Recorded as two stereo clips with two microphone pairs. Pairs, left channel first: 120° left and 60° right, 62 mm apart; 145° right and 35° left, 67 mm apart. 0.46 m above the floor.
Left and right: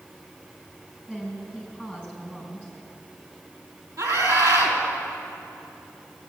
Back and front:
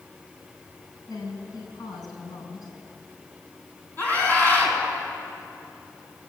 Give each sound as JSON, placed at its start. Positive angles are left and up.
{"t": 1.1, "sound": "a woman speaking", "azimuth_deg": -140, "distance_m": 5.5}
{"t": 4.0, "sound": "a scream", "azimuth_deg": -90, "distance_m": 4.0}